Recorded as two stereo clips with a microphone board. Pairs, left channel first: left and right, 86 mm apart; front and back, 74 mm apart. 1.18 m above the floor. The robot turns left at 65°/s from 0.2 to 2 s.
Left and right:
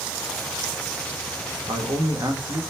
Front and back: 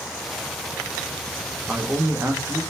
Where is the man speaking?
105° right, 0.9 m; by 2.6 s 125° right, 0.9 m.